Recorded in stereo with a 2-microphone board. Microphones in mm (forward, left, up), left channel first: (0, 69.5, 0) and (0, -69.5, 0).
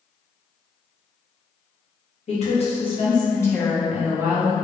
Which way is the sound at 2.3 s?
55° left (ahead or behind).